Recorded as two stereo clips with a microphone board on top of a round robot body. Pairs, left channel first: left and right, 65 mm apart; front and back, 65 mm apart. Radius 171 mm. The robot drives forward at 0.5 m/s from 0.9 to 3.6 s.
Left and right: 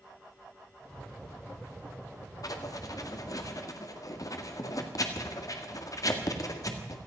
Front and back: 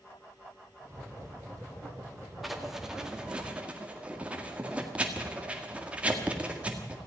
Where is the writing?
90° left, 1.9 m; by 7.0 s 110° left, 2.0 m.